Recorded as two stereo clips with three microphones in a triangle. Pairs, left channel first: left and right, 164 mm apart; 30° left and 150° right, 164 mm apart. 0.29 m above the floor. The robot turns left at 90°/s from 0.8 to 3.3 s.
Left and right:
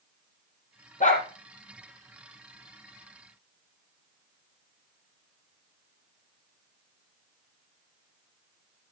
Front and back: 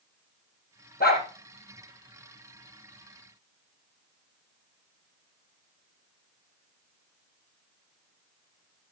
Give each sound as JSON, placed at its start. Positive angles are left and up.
{"t": 1.0, "sound": "a dog barking", "azimuth_deg": 55, "distance_m": 3.0}